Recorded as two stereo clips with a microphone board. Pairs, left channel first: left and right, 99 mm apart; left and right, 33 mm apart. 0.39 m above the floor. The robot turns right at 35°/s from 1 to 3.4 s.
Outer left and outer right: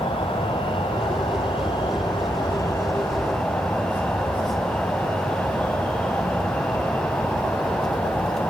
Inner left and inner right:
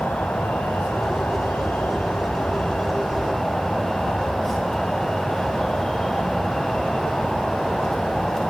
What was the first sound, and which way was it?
An insect, 80° left.